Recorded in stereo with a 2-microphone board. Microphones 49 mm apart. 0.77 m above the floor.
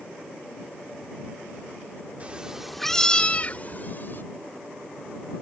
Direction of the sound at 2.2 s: 30° right (ahead or behind).